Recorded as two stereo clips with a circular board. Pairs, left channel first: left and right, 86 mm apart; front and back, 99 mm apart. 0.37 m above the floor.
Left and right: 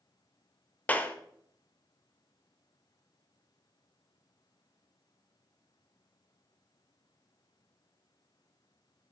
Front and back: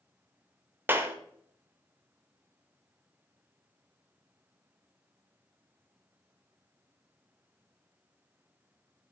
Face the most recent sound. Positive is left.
turn(degrees=140)